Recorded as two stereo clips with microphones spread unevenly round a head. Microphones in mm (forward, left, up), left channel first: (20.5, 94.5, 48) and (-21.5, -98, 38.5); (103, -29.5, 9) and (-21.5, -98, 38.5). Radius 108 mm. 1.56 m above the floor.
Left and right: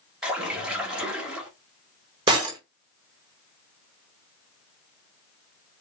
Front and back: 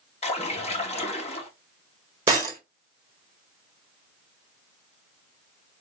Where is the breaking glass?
160° right, 1.5 m.